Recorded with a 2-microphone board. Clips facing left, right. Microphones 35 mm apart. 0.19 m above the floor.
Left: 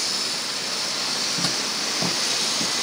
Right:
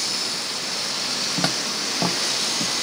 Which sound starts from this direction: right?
Footsteps, at 1.4 s.